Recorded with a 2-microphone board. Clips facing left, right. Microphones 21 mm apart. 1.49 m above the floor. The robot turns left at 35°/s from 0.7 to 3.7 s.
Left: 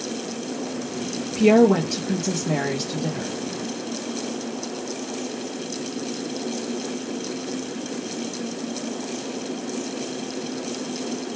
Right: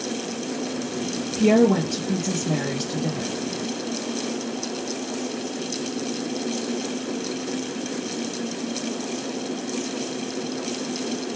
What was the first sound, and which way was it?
A woman speaking, 120° left.